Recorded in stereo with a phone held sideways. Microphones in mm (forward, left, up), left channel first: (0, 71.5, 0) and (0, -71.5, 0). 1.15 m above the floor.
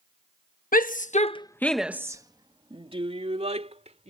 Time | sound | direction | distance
0.7 | a shout | 75° left (ahead or behind) | ?